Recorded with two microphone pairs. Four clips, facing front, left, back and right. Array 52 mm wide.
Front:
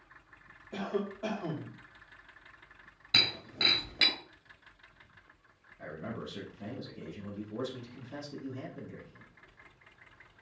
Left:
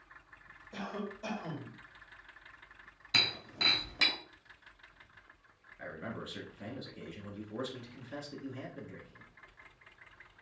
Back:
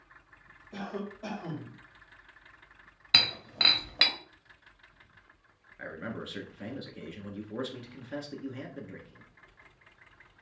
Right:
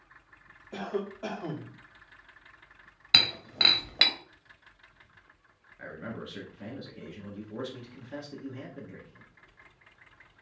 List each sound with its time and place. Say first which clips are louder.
0.7 s a cough: right 6 dB, front 3 dB; 65° right, 2.5 m
3.1 s breaking glass: right 6 dB, back 2 dB; 120° right, 1.9 m
5.8 s a man speaking: right 2 dB, back 2 dB; 165° right, 2.0 m